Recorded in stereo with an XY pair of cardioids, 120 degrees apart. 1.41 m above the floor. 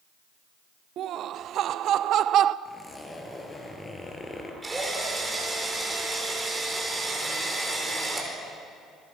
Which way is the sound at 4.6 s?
15° right.